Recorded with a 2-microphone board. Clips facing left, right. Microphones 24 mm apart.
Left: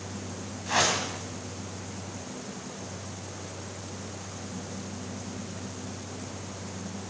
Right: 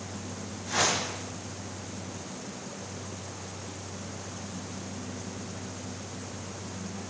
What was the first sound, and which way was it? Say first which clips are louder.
A whoosh: left 2 dB; 60° left (ahead or behind).